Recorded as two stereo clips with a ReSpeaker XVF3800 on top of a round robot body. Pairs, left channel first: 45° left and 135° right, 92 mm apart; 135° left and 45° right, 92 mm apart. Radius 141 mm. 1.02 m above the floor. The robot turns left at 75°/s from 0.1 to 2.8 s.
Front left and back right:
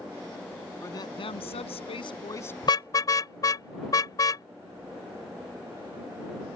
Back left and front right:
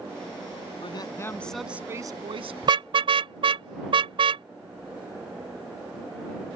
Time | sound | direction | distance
0.8 | a woman speaking | 105° left | ?
2.6 | a car horn | 5° left | ?